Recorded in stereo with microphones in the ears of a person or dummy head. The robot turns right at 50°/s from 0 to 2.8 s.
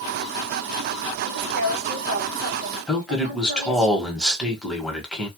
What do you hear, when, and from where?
1.2 s a woman speaking: 135° right, 1.1 m; by 3.9 s 55° right, 1.1 m
2.9 s a man speaking: 5° left (ahead or behind), 1.2 m